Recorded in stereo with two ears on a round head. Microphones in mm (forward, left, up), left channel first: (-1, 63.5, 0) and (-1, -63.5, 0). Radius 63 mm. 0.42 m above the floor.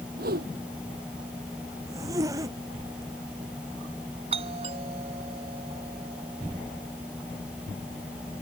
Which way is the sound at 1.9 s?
25° right (ahead or behind).